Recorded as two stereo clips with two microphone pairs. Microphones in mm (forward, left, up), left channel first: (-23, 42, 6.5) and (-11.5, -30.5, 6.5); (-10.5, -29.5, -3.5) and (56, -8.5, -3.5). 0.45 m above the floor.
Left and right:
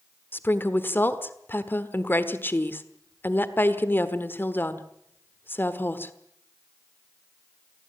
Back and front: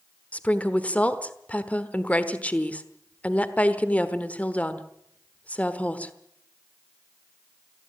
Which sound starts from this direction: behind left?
A woman speaking, at 0.3 s.